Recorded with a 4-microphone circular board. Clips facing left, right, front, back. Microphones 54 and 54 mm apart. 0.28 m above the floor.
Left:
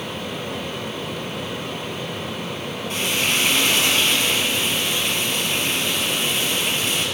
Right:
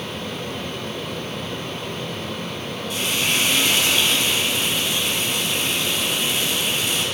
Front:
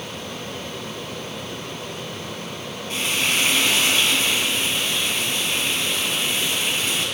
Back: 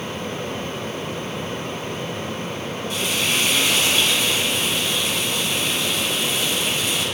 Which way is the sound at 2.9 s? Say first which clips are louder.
Left 1 dB, front 1 dB; 50° left.